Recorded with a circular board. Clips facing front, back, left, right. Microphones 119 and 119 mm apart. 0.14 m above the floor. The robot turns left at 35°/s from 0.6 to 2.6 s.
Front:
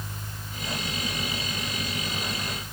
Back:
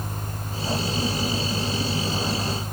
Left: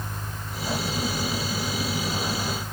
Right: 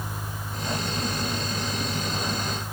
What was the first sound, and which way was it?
Only background noise.